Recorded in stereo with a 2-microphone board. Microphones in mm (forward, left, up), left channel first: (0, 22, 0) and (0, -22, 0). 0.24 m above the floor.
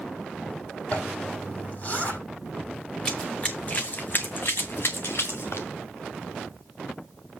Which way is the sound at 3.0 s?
15° left (ahead or behind).